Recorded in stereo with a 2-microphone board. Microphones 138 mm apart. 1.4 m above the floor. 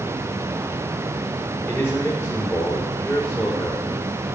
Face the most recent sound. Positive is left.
turn(degrees=10)  # may be behind; listen again after turning